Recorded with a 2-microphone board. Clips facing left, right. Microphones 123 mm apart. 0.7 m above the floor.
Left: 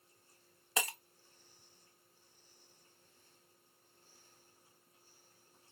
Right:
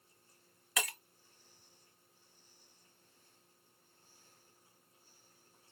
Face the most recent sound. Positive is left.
turn(degrees=30)  # may be behind; listen again after turning